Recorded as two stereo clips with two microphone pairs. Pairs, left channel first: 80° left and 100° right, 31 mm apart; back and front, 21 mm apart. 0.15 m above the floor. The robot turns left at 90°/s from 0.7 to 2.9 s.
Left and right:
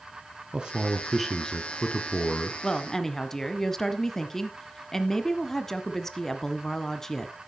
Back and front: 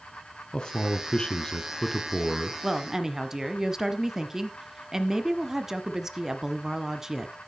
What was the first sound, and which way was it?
A man speaking, 145° right.